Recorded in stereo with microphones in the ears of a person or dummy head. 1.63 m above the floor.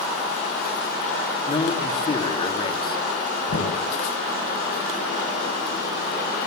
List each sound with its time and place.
1.5 s a man speaking: 30° left (ahead or behind), 3.5 m
3.5 s knocking: 55° left (ahead or behind), 7.5 m